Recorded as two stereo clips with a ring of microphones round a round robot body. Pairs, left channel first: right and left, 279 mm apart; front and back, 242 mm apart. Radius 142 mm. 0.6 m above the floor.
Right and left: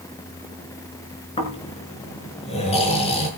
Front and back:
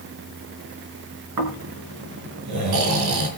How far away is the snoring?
About 5 m.